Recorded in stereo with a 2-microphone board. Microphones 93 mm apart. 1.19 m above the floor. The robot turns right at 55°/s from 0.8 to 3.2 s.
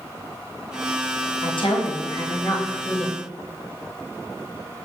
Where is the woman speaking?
80° left, 0.8 m; by 3.2 s straight behind, 0.8 m.